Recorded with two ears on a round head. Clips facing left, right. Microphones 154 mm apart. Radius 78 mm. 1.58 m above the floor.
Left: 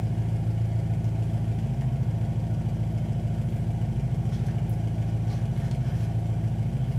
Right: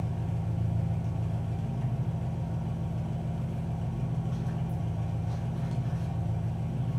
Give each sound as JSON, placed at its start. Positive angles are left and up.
{"t": 0.0, "sound": "an engine running", "side_deg": 20, "distance_m": 0.7}